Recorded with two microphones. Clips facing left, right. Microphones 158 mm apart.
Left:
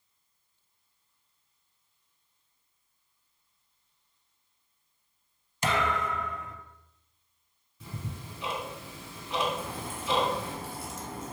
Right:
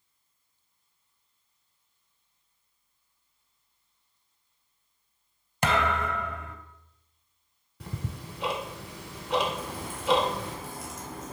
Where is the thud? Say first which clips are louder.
Right 2 dB; 60° right (ahead or behind), 0.6 m.